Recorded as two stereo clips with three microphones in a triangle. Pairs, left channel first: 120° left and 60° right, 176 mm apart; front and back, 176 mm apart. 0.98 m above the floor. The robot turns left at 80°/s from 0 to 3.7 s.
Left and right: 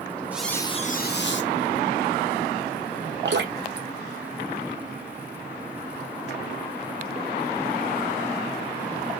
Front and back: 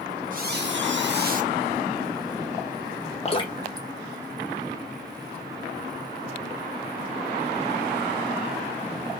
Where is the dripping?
50° right, 0.8 m; by 5.3 s 85° right, 0.8 m.